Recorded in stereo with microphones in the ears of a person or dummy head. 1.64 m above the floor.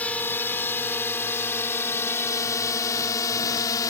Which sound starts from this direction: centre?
A drone, at 0.0 s.